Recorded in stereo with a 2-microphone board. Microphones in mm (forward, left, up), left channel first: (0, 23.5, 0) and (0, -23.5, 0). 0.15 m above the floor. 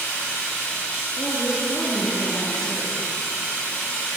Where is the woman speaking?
10° left (ahead or behind), 1.6 m.